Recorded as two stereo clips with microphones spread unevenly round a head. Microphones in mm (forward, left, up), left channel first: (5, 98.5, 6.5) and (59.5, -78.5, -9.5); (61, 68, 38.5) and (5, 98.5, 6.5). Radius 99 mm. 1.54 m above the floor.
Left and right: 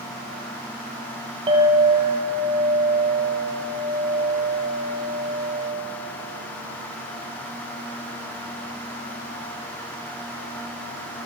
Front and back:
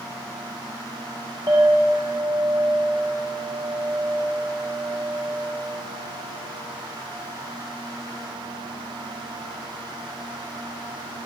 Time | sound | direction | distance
1.5 | a clink | 135° right | 0.8 m